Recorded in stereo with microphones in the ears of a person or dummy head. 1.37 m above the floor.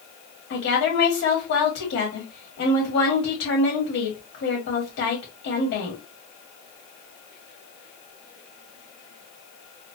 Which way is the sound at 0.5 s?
55° left (ahead or behind).